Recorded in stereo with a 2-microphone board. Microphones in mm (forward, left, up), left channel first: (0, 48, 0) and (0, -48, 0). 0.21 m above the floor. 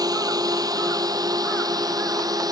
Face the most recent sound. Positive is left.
turn(degrees=-40)  # may be behind; listen again after turning